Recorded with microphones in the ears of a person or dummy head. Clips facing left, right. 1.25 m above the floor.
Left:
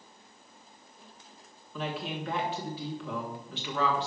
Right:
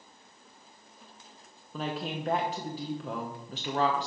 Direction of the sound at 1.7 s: 30° right (ahead or behind).